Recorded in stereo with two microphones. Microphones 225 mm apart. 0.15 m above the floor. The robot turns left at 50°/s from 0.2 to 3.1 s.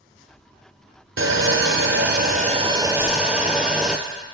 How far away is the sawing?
About 0.6 m.